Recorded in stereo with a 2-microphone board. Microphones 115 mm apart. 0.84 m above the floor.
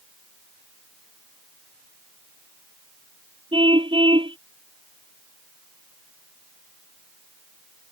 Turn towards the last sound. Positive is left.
turn(degrees=-45)  # may be behind; listen again after turning